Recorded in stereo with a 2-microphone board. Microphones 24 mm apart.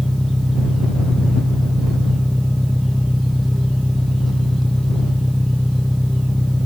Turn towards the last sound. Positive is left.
turn(degrees=10)  # may be behind; listen again after turning